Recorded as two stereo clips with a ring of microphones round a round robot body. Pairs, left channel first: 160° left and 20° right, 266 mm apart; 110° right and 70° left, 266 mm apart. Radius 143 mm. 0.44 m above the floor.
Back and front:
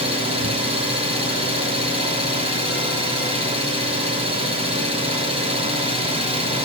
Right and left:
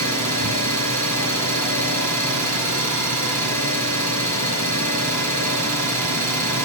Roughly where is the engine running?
Ahead left.